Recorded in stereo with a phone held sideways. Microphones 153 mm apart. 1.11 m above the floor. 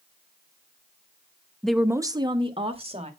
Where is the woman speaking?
10° left (ahead or behind), 0.5 m; by 3.1 s 40° right (ahead or behind), 2.0 m.